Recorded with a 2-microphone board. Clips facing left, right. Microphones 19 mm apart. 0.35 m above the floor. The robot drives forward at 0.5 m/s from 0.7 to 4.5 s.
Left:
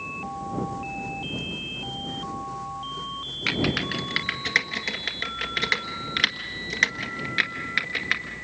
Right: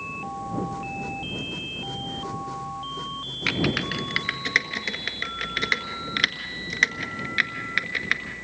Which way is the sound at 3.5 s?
5° right (ahead or behind).